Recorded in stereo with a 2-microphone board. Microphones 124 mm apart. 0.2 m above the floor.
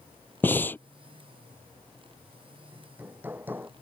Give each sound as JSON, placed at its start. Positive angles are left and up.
{"t": 0.4, "sound": "breathing", "side_deg": 15}
{"t": 2.7, "sound": "hammering", "side_deg": -15}